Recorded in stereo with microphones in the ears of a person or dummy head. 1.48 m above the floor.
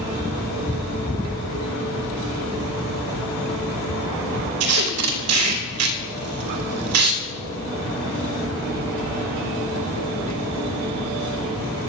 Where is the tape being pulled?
85° right, 2.5 m.